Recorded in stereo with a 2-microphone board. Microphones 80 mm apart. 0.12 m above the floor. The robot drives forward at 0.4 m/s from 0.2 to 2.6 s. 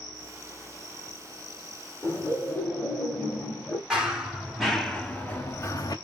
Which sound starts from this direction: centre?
Running footsteps, at 3.9 s.